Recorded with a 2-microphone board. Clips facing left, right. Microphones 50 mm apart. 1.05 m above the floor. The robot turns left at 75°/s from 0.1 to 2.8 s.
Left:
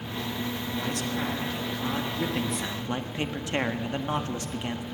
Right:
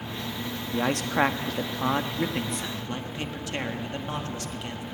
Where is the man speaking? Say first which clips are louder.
Right 8 dB; 45° right, 1.3 m; by 4.8 s 160° left, 1.3 m.